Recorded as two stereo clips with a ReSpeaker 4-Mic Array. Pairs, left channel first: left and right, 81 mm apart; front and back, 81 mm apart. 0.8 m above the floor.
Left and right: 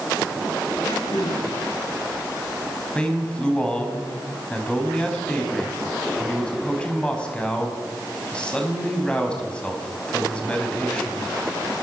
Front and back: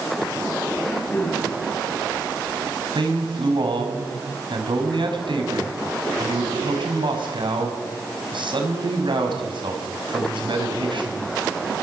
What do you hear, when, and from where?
0.8 s throat clearing: 70° left, 9.5 m
3.0 s a man speaking: 165° left, 5.5 m